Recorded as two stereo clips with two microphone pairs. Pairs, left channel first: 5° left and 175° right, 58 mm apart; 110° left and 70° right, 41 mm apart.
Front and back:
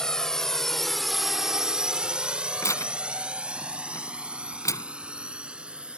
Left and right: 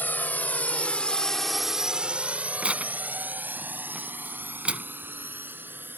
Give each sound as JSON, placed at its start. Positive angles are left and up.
{"t": 0.0, "sound": "a drone", "azimuth_deg": 80}
{"t": 2.6, "sound": "tearing paper", "azimuth_deg": -10}